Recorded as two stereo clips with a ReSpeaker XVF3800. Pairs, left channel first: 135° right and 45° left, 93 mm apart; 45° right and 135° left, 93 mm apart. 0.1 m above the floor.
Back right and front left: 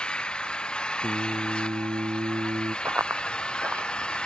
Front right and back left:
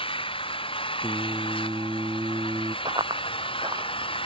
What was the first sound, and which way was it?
An engine running, 55° right.